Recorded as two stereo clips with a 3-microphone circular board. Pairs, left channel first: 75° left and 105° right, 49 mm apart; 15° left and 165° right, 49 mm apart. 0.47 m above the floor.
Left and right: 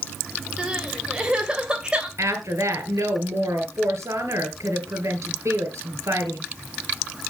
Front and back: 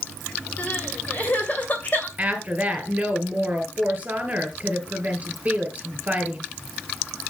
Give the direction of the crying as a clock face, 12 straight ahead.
1 o'clock.